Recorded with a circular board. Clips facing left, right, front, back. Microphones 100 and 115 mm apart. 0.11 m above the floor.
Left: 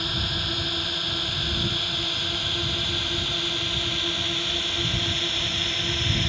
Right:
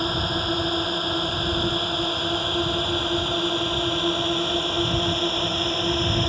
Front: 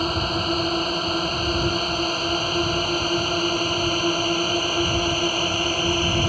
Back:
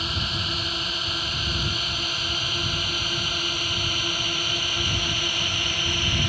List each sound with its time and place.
0.0 s a drone: 40° right; by 6.3 s 45° right